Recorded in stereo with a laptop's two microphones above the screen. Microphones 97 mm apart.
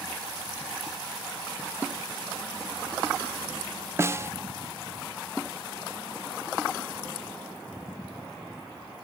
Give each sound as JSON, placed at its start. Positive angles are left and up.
{"t": 4.0, "sound": "a snare drum", "side_deg": -25, "distance_m": 0.6}